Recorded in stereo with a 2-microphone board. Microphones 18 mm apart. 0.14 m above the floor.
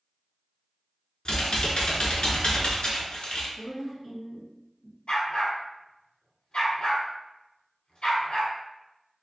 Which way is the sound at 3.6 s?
30° right (ahead or behind).